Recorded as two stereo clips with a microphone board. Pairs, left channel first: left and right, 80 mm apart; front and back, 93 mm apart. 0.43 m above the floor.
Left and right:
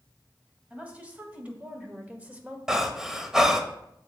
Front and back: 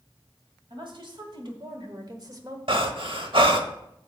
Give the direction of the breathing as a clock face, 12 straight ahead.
6 o'clock.